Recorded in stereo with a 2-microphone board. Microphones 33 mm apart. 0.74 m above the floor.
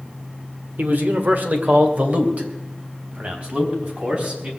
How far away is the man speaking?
About 1.7 m.